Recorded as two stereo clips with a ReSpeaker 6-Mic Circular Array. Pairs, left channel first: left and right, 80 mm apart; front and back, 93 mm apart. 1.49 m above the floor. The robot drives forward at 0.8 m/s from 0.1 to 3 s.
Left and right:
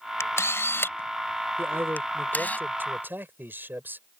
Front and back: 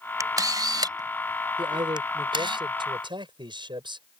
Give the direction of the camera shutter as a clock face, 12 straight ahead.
7 o'clock.